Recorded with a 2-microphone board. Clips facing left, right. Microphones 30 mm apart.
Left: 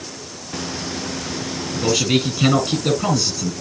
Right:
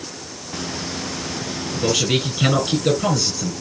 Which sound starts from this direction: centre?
A man speaking, at 1.7 s.